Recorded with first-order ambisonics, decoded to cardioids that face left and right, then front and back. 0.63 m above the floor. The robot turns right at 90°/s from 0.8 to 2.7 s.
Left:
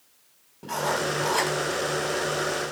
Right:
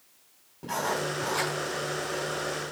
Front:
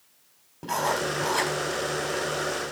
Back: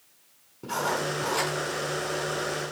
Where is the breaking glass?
No breaking glass in this recording.